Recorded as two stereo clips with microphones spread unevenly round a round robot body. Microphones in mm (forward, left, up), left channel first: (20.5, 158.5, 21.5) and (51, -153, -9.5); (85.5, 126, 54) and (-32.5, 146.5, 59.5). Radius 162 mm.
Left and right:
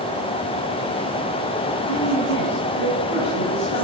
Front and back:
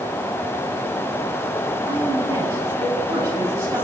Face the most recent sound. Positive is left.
turn(degrees=100)